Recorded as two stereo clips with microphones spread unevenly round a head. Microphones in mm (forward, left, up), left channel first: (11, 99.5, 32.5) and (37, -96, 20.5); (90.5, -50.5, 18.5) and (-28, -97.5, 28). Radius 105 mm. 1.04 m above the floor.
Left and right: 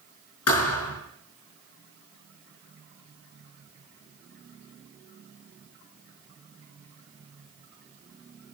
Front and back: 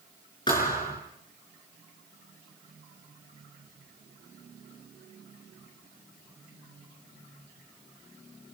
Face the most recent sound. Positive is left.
turn(degrees=95)